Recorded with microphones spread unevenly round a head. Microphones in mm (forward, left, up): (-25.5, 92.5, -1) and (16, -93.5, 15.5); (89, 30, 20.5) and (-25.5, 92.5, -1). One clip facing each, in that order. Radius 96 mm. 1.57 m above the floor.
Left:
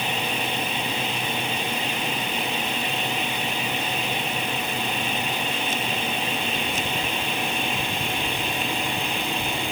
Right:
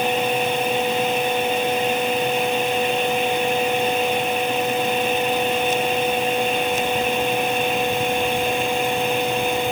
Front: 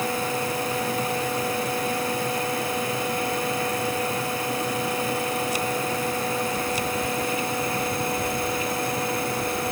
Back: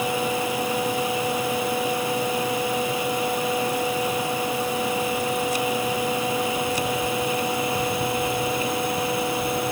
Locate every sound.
0.0 s a fan: 125° right